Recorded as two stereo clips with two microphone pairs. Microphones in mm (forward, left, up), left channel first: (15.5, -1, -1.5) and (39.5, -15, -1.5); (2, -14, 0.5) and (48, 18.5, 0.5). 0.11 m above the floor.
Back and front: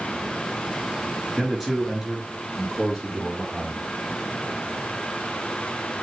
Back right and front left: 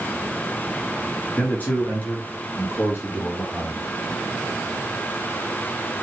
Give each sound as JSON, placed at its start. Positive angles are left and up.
{"t": 1.4, "sound": "a man speaking", "azimuth_deg": -110, "distance_m": 2.0}